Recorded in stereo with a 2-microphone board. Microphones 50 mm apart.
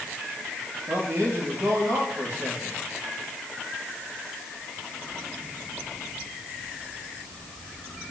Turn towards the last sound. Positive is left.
turn(degrees=-80)